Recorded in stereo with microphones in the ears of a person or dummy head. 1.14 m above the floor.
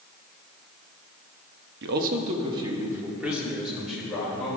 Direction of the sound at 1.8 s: 65° right (ahead or behind).